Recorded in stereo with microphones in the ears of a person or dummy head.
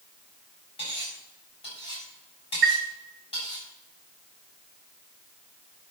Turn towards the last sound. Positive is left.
turn(degrees=-50)  # may be behind; listen again after turning